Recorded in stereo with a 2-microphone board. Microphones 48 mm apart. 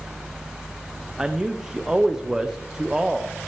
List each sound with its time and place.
1.2 s a man speaking: 15° right (ahead or behind), 0.6 m